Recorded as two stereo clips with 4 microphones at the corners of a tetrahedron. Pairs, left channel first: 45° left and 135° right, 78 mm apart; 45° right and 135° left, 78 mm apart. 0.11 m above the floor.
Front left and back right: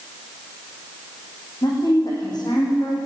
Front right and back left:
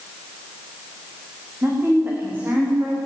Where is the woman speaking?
70° left, 9 m.